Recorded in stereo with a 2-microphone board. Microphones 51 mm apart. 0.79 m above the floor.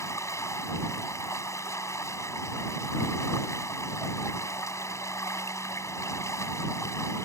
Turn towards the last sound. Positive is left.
turn(degrees=85)